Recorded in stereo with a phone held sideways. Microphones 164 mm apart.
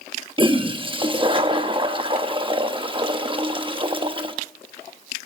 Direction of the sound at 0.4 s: 30° right (ahead or behind).